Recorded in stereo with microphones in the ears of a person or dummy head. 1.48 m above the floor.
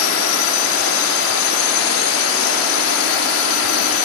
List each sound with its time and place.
0.0 s a drone: 70° left (ahead or behind)